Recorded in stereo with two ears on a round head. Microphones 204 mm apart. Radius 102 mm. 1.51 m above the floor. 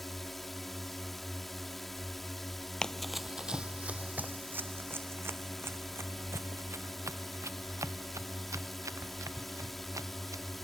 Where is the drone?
Centre (ahead or behind).